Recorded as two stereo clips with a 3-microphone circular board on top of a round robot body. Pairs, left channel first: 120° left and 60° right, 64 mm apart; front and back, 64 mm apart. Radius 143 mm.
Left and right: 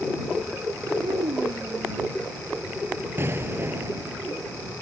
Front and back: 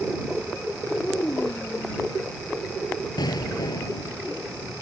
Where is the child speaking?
75° right.